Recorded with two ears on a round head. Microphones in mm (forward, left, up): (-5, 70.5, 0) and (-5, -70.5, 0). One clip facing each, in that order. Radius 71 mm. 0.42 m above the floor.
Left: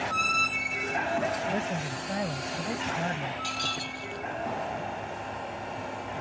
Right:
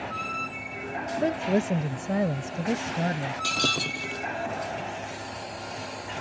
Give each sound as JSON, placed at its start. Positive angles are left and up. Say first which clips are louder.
{"t": 1.2, "sound": "a woman speaking", "louder": "right 5 dB", "side_deg": -55}
{"t": 3.4, "sound": "breaking glass", "louder": "right 5 dB", "side_deg": -65}